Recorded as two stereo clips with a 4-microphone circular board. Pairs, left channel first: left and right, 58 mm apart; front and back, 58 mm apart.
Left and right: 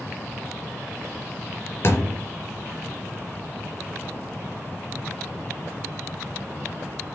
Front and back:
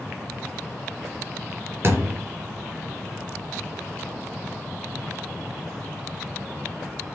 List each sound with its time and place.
1.8 s a thud: 135° left, 3.5 m